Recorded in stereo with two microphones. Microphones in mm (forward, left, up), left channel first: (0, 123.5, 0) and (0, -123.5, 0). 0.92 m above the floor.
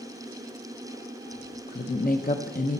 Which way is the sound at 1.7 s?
35° left (ahead or behind).